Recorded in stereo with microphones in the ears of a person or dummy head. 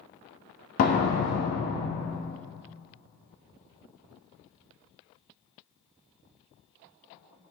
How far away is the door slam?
About 1.2 m.